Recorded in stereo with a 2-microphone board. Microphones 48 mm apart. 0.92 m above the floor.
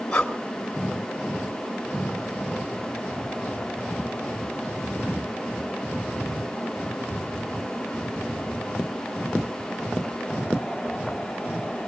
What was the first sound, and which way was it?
Breathing, 15° left (ahead or behind).